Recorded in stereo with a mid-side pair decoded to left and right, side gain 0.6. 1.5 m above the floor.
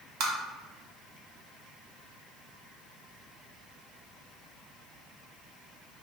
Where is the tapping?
65° right, 0.7 m.